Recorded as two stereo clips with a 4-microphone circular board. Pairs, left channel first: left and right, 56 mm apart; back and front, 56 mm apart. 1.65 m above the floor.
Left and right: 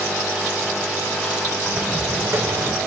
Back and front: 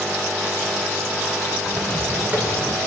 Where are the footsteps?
60° right, 6 m.